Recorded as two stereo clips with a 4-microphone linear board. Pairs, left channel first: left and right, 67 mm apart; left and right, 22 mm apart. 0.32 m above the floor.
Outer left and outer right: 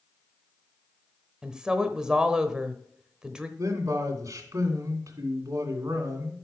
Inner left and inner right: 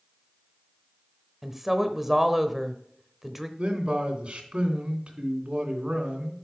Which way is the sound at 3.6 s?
55° right (ahead or behind).